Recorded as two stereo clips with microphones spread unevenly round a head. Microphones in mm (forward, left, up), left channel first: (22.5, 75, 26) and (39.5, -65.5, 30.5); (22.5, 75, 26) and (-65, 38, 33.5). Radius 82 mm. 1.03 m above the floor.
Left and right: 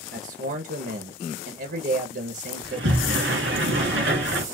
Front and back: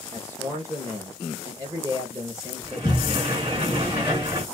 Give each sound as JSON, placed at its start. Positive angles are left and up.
{"t": 0.1, "sound": "a man speaking", "azimuth_deg": -95, "distance_m": 1.2}
{"t": 2.6, "sound": "a sliding door", "azimuth_deg": -90, "distance_m": 2.5}